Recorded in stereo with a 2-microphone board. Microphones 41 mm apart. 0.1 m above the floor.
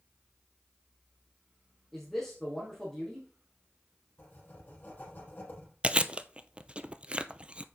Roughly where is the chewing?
Right.